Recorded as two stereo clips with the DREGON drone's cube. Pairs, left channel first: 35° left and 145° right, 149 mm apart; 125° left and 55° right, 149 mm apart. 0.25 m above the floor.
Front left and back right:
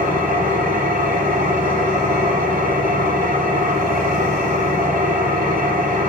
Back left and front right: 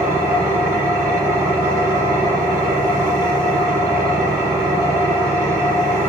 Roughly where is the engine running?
Behind right.